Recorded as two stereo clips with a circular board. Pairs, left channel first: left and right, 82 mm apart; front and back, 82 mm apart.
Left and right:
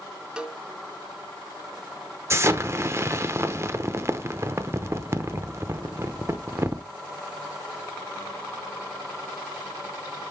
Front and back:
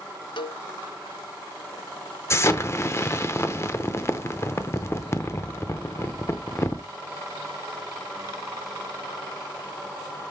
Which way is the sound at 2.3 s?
45° right.